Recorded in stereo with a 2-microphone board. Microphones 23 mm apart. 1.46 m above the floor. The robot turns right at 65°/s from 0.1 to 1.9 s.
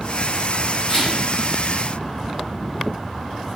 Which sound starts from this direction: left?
A camera shutter, at 0.9 s.